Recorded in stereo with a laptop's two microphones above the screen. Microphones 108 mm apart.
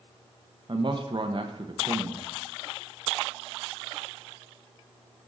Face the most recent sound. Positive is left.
turn(degrees=-45)  # may be behind; listen again after turning